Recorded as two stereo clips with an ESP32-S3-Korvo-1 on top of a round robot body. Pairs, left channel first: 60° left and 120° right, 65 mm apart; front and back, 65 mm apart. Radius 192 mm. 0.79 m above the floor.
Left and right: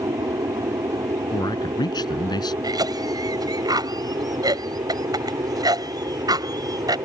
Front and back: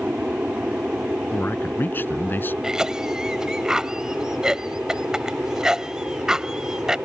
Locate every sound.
0.0 s an aircraft: 110° right; by 7.1 s 105° right
1.3 s a man speaking: 60° left
2.6 s a cough: 100° right